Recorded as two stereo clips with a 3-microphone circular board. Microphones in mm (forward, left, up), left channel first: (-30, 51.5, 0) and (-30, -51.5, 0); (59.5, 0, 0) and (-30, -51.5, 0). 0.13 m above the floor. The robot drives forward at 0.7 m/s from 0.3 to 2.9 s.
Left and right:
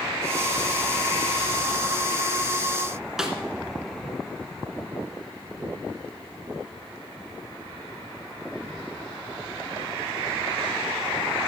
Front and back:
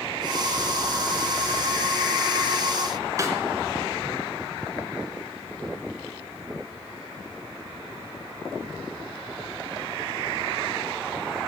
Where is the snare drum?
170° right, 1.9 m.